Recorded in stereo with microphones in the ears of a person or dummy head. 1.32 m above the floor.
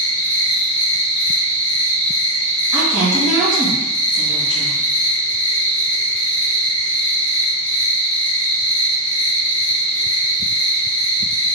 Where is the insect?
10° left (ahead or behind), 0.7 m.